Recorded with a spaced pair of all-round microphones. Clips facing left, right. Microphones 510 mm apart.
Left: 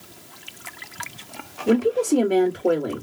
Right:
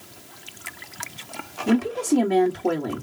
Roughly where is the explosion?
No explosion in this recording.